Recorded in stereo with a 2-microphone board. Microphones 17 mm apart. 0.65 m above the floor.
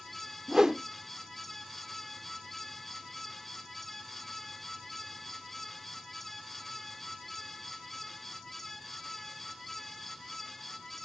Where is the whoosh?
35° right (ahead or behind), 0.5 m.